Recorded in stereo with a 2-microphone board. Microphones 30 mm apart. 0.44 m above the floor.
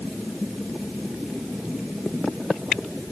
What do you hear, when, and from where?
Only background noise.